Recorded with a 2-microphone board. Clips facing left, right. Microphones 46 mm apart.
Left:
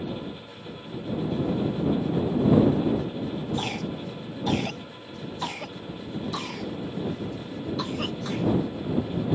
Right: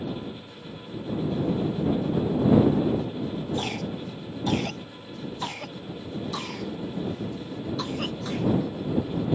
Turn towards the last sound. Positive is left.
turn(degrees=5)  # may be behind; listen again after turning